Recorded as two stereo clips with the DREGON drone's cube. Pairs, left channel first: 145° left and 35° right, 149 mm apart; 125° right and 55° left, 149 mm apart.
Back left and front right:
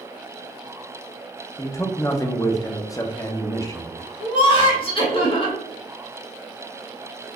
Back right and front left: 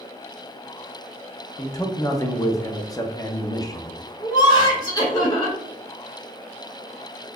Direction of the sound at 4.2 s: Straight behind.